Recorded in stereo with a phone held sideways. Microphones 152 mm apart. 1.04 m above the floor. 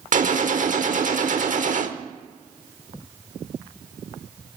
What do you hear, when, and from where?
0.1 s a gunshot: 60° right (ahead or behind), 1.1 m